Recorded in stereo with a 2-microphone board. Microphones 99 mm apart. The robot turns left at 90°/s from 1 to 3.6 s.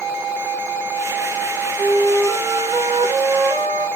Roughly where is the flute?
Ahead left.